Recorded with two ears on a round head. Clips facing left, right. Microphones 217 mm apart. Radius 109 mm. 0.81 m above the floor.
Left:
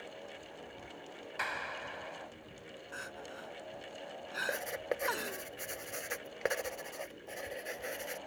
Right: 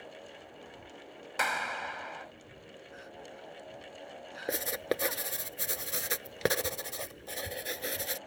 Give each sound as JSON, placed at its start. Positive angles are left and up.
{"t": 1.4, "sound": "a clap", "side_deg": -70}
{"t": 2.9, "sound": "crying", "side_deg": 75}
{"t": 4.5, "sound": "writing", "side_deg": -55}